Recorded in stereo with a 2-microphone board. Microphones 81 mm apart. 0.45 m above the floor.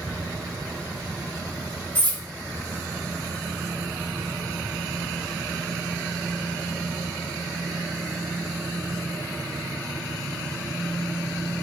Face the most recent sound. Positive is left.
turn(degrees=20)  # may be behind; listen again after turning